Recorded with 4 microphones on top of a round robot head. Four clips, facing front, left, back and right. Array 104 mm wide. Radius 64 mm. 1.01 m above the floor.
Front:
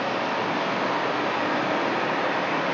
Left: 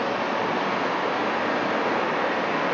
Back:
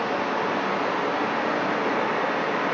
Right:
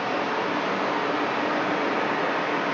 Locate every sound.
0.0 s running water: 120° left, 1.0 m